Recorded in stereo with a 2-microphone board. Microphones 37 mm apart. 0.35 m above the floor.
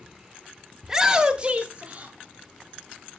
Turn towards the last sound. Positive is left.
turn(degrees=-30)  # may be behind; listen again after turning